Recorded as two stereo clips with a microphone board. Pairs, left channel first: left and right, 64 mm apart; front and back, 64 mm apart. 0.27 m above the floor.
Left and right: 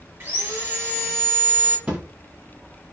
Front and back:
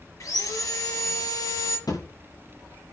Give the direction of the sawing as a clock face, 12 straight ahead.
1 o'clock.